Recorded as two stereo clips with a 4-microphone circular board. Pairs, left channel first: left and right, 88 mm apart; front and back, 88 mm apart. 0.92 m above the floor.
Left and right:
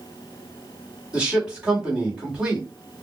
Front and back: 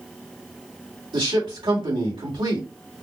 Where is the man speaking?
170° right, 2.0 m.